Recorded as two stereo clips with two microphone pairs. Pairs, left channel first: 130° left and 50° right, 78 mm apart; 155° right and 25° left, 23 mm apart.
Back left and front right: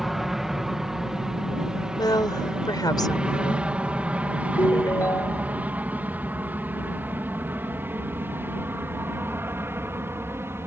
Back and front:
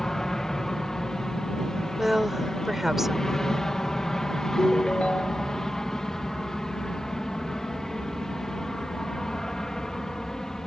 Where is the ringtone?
Straight behind.